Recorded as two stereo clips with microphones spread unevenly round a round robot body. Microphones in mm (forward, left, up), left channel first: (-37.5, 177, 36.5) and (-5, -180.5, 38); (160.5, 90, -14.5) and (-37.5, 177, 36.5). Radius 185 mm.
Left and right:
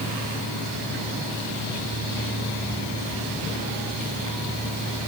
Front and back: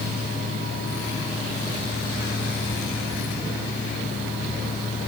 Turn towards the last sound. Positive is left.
No sound to turn to.